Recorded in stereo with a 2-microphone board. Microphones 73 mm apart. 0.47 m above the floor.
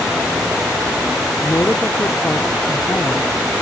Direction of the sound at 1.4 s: 30° left (ahead or behind).